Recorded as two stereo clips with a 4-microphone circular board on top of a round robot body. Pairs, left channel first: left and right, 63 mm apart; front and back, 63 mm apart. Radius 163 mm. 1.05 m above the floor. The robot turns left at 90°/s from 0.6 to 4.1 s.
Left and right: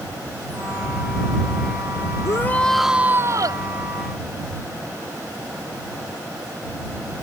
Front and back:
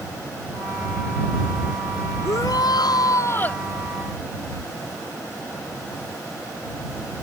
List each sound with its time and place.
2.2 s a shout: 50° left; by 3.6 s 75° right